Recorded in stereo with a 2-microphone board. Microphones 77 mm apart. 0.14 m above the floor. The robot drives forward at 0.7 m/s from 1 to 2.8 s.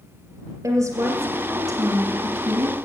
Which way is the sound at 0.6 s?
40° right (ahead or behind).